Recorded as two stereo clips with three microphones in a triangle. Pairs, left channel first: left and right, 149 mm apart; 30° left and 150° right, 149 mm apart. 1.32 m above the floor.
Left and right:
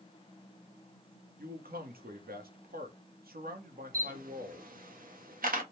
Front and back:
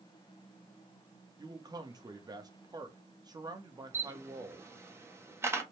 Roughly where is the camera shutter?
Right.